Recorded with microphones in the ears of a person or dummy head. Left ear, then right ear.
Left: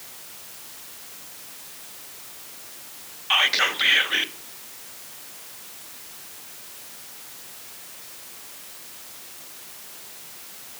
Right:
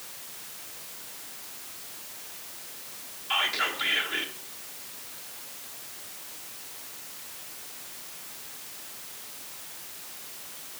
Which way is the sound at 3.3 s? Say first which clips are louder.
Left 7 dB; 35° left (ahead or behind).